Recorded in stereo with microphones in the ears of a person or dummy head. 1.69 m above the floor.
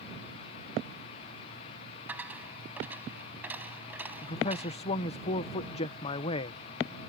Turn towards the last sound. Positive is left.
turn(degrees=30)  # may be behind; listen again after turning